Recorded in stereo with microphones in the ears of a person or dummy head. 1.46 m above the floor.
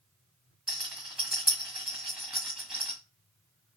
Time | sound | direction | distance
0.7 | a rattle | 5° right (ahead or behind) | 1.5 m